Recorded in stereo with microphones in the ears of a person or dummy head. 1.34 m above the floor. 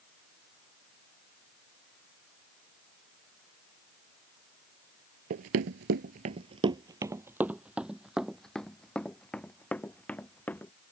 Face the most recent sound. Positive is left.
turn(degrees=10)  # may be behind; listen again after turning